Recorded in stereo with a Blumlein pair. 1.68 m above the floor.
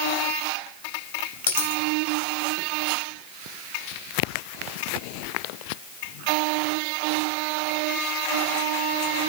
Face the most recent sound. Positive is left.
turn(degrees=70)